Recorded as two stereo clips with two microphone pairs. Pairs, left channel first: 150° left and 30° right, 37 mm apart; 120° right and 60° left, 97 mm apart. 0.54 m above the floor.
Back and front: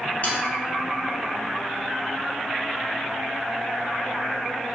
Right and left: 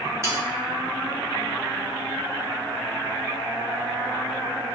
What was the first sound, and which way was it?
Sawing, 115° left.